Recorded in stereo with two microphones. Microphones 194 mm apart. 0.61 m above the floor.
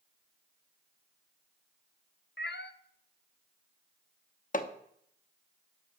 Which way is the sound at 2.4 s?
60° left (ahead or behind).